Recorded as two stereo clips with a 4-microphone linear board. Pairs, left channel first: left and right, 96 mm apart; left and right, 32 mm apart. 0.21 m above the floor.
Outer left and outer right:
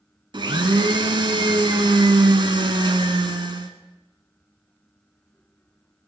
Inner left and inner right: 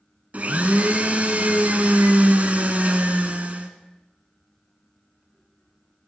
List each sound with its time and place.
0.3 s a blender: 55° right (ahead or behind), 0.7 m